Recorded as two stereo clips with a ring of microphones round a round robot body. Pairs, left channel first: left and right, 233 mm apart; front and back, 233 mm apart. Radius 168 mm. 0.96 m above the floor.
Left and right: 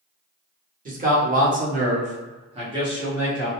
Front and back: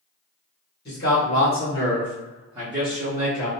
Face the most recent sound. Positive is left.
turn(degrees=-170)